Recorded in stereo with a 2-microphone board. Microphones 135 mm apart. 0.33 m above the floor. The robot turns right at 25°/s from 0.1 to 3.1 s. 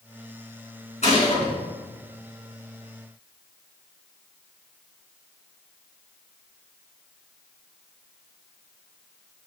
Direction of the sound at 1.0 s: 60° left (ahead or behind).